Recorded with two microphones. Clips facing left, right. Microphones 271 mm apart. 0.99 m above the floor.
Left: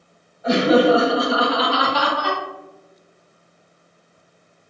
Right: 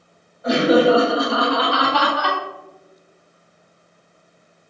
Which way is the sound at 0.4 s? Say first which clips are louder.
Even; 35° right (ahead or behind).